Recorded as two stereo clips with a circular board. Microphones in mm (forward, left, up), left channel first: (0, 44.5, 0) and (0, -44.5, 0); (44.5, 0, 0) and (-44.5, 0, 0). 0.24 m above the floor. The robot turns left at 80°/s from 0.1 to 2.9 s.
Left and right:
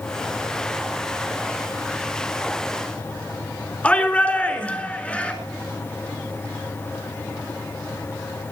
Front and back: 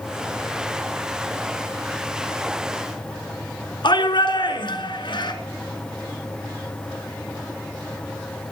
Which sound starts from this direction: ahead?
A shout, at 3.8 s.